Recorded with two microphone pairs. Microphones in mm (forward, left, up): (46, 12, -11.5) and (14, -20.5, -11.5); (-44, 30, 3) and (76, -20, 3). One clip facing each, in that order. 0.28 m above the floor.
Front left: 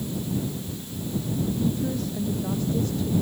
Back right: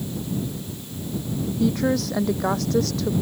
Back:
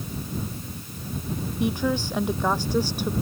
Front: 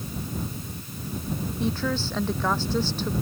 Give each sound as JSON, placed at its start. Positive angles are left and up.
{"t": 1.6, "sound": "a woman speaking", "azimuth_deg": -125}